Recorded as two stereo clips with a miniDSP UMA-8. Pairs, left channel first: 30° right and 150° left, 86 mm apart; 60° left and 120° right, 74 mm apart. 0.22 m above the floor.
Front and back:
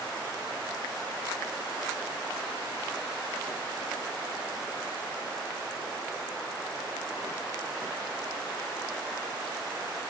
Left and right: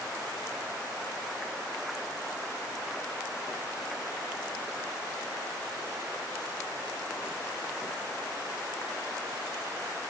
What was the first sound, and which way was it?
Only background noise.